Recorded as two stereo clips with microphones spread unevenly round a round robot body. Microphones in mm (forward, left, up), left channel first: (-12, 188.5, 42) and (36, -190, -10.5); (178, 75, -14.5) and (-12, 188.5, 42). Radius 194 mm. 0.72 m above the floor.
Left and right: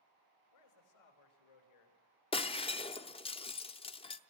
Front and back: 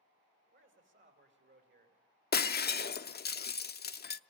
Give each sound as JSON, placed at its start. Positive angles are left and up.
{"t": 0.5, "sound": "a man speaking", "azimuth_deg": 115, "distance_m": 3.5}
{"t": 2.3, "sound": "breaking glass", "azimuth_deg": 20, "distance_m": 0.7}